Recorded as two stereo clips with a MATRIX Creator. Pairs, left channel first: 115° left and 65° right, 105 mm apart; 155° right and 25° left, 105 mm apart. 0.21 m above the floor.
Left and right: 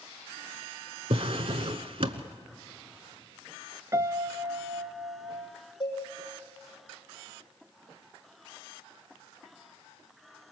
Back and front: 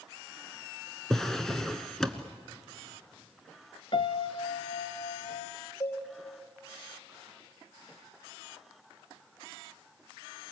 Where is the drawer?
70° right, 1.0 m.